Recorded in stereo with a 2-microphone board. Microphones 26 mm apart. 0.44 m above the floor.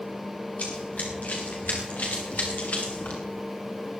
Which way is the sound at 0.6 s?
65° left (ahead or behind).